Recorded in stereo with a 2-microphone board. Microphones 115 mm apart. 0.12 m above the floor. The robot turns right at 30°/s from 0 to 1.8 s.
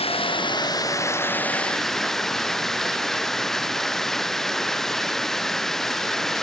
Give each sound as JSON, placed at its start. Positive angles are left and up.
{"t": 0.0, "sound": "running water", "azimuth_deg": 120}